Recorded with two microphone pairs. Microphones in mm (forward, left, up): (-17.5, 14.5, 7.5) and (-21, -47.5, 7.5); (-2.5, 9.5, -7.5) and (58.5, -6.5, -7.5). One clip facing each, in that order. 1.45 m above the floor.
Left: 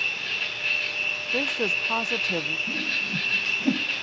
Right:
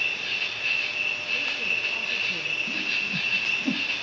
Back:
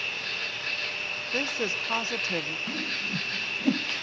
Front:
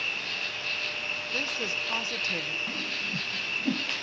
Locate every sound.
0.0 s an insect: 175° left, 6 m
1.3 s a woman speaking: 95° left, 0.7 m
2.7 s a whoosh: 120° left, 0.6 m